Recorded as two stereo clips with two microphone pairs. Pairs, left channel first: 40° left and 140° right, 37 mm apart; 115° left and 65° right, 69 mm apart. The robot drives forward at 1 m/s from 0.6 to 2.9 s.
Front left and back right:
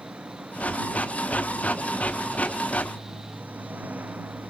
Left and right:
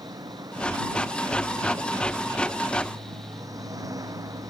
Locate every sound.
0.0 s an engine running: 85° right; by 4.5 s 95° right